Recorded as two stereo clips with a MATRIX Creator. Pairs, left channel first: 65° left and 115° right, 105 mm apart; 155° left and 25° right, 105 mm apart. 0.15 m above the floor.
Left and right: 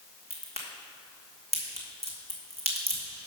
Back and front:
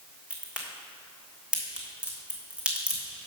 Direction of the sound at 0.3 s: 105° right.